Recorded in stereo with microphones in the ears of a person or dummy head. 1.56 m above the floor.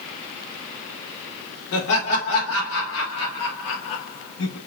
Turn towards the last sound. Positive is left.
turn(degrees=55)  # may be behind; listen again after turning